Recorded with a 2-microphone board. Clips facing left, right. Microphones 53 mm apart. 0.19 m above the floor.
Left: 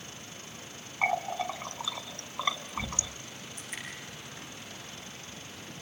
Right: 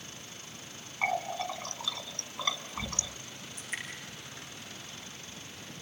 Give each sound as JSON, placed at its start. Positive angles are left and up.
{"t": 1.0, "sound": "a running tap", "side_deg": 15, "distance_m": 1.2}
{"t": 3.6, "sound": "dripping", "side_deg": -25, "distance_m": 10.0}